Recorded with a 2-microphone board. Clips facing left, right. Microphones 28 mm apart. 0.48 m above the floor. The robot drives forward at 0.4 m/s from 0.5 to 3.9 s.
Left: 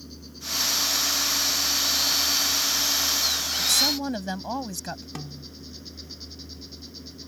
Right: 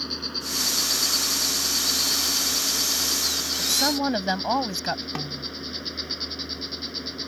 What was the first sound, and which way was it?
An insect, 80° right.